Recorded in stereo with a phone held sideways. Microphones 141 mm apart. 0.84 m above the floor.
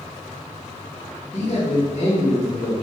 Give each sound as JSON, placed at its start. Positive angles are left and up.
{"t": 1.3, "sound": "a man speaking", "side_deg": 50, "distance_m": 1.4}